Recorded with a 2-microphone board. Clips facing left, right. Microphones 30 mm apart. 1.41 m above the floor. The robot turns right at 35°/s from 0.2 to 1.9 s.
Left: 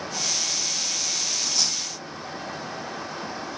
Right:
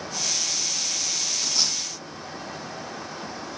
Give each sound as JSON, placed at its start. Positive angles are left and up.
{"t": 1.4, "sound": "a dropped coin", "side_deg": -25, "distance_m": 3.0}